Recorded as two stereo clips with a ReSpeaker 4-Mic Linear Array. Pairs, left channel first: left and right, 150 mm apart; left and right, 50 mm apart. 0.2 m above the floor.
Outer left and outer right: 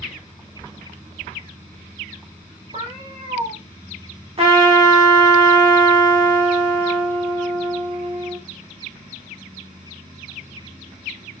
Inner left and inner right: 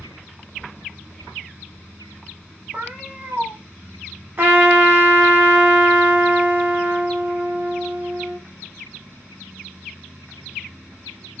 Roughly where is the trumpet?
Right.